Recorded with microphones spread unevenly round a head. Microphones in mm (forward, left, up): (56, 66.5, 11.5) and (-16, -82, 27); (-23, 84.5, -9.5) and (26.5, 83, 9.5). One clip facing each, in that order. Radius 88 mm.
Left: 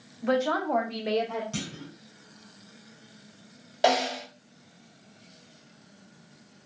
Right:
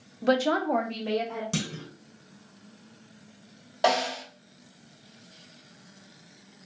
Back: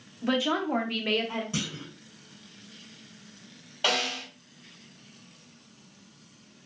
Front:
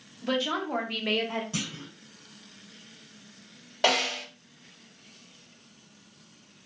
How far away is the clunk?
About 0.8 m.